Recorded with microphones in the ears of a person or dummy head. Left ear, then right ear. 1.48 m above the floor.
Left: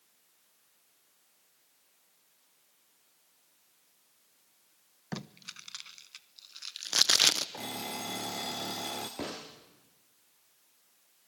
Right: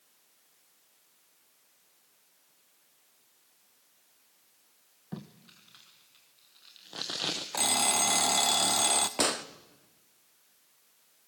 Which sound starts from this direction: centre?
An alarm clock, at 7.5 s.